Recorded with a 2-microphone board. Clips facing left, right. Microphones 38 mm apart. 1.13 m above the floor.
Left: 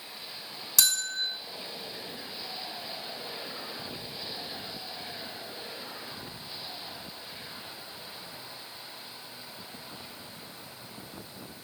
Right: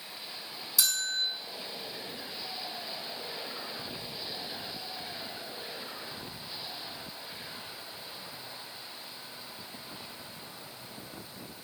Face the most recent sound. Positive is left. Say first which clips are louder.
# left 2 dB
turn(degrees=65)  # may be behind; listen again after turning